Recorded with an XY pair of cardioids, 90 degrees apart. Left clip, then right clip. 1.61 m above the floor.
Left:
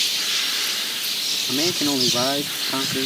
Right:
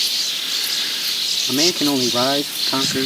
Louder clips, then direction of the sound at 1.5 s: Right 4 dB; 40° right.